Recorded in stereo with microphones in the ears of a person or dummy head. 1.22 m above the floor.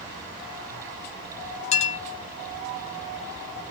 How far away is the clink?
About 1.1 m.